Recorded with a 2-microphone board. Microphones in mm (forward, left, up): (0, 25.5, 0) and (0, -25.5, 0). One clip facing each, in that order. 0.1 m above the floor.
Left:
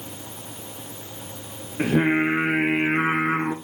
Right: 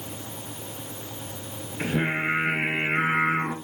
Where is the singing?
70° left (ahead or behind), 1.7 m.